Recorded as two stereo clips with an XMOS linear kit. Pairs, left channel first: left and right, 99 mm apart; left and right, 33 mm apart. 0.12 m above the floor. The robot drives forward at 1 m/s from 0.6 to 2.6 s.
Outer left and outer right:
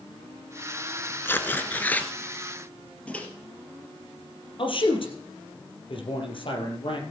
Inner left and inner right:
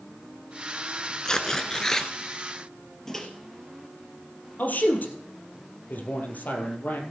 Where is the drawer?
No drawer in this recording.